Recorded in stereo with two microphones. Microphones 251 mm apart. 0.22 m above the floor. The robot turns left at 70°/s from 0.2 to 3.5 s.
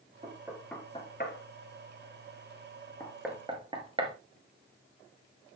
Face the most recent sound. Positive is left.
turn(degrees=-20)  # may be behind; listen again after turning